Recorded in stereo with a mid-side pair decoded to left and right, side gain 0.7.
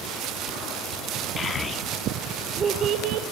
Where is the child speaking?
25° left, 1.2 m; by 3.2 s 65° right, 0.9 m.